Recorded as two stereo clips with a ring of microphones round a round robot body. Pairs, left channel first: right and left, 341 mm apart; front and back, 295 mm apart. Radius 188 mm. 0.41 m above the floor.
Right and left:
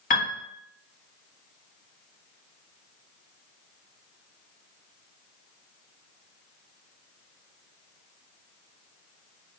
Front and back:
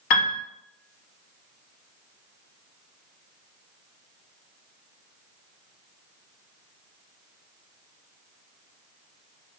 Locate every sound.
0.1 s a piano: 25° right, 0.5 m